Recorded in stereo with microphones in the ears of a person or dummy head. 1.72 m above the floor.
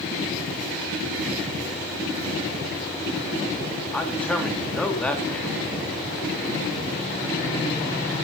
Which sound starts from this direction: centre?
A man speaking, at 3.9 s.